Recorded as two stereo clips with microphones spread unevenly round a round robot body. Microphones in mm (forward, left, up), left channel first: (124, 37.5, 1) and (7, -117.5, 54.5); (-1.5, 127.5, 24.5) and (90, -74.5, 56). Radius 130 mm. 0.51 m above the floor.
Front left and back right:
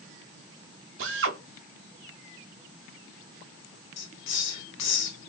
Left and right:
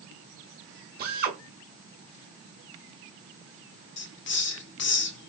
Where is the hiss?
75° left, 0.5 m.